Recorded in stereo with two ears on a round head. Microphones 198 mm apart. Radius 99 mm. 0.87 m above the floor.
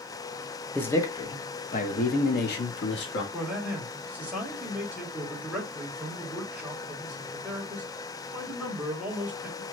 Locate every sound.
0.8 s a man speaking: 10° left (ahead or behind), 0.9 m; by 3.2 s 60° left (ahead or behind), 1.7 m
3.3 s a man speaking: 5° right (ahead or behind), 2.5 m